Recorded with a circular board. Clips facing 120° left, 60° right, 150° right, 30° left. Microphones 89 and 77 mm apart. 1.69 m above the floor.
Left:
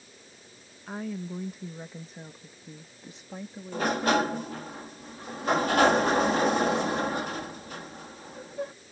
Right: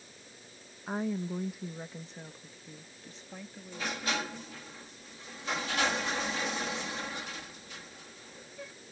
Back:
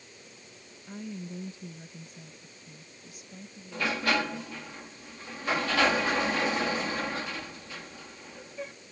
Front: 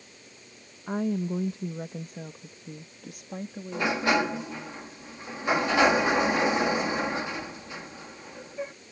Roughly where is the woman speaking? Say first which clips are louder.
Right 2 dB, front 11 dB; ahead.